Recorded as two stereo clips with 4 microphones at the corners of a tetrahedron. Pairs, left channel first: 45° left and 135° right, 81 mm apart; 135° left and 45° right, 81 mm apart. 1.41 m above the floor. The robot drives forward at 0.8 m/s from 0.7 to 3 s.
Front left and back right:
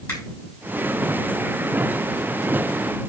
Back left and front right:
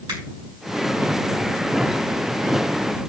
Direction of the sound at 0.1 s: 15° right.